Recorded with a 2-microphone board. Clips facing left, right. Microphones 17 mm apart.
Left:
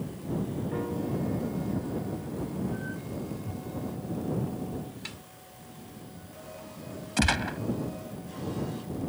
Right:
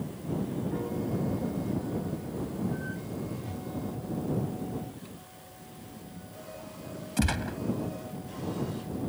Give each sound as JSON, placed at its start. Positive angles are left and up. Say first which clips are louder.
{"t": 0.7, "sound": "a piano", "louder": "left 1 dB", "side_deg": 30}
{"t": 3.3, "sound": "a whoosh", "louder": "even", "side_deg": -55}
{"t": 5.0, "sound": "a snare drum", "louder": "left 6 dB", "side_deg": 90}
{"t": 7.2, "sound": "a gunshot", "louder": "left 4 dB", "side_deg": 25}